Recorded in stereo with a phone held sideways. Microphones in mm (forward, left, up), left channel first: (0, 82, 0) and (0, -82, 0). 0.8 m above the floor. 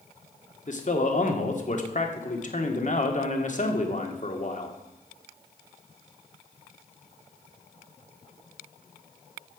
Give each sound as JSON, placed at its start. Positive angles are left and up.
{"t": 0.7, "sound": "a man speaking", "side_deg": 50, "distance_m": 1.7}